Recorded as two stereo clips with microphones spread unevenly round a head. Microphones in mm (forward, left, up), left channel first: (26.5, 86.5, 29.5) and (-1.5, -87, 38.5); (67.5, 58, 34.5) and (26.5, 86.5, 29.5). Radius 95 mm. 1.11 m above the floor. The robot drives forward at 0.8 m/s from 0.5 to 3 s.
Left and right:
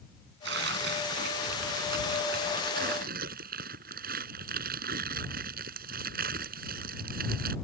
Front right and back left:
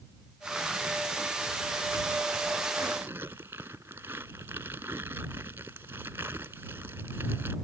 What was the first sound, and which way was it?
Tearing paper, 130° right.